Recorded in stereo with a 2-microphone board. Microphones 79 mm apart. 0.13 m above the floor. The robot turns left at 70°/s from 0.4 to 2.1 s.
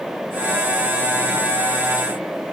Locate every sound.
Only background noise.